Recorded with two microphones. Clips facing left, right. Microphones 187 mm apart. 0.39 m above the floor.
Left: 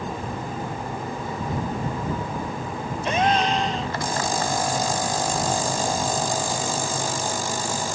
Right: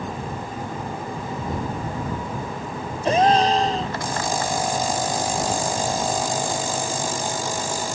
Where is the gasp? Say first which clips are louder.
Right 5 dB; 35° right (ahead or behind).